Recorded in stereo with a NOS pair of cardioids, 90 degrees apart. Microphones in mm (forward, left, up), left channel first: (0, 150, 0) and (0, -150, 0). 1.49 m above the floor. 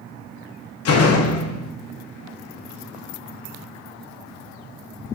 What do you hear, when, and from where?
0.8 s a door slam: 55° left, 0.9 m